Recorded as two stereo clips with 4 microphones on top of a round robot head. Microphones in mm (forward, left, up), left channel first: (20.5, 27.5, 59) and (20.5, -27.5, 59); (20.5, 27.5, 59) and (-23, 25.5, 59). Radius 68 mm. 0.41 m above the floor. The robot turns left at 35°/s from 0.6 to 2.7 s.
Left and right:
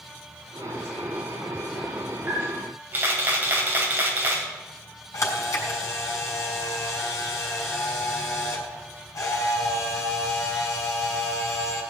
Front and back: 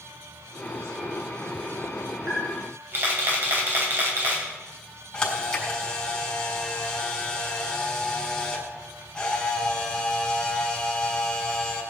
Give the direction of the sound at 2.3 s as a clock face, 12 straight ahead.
4 o'clock.